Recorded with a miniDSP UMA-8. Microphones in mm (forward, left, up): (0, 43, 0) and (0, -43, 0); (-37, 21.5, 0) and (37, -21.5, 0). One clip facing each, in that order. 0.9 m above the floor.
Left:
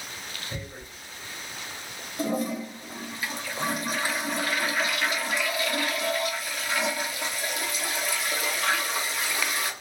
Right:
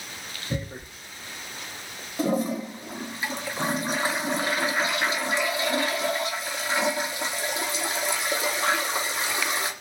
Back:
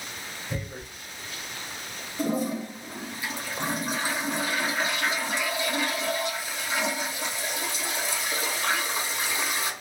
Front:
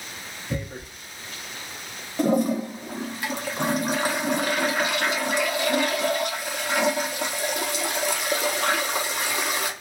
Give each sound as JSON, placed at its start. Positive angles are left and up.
{"t": 0.5, "sound": "tearing paper", "azimuth_deg": -65, "distance_m": 0.9}
{"t": 2.2, "sound": "a toilet flushing", "azimuth_deg": -30, "distance_m": 0.6}